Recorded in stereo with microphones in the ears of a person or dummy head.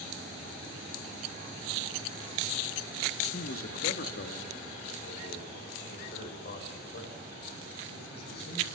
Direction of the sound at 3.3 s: 55° left (ahead or behind).